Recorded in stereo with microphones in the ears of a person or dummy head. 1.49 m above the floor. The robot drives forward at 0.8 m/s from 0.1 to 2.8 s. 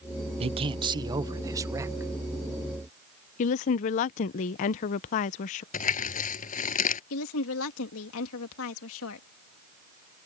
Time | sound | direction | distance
0.4 | a man speaking | 35° right (ahead or behind) | ?
3.4 | a woman speaking | 40° left (ahead or behind) | ?
5.7 | crumpling | 40° left (ahead or behind) | ?
7.1 | a woman speaking | 80° left | ?